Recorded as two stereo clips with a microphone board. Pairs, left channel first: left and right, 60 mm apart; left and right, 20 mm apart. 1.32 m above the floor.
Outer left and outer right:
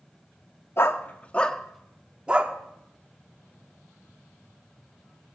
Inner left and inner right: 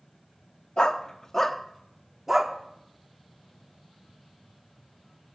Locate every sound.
0.8 s a dog barking: 45° left (ahead or behind), 1.1 m; by 2.5 s 20° right (ahead or behind), 1.4 m